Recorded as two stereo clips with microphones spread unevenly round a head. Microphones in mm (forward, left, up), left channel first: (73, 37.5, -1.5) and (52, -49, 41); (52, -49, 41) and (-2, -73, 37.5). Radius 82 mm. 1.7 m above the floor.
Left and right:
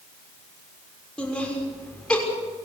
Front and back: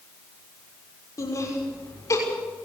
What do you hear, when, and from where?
1.2 s laughter: 5° right, 6 m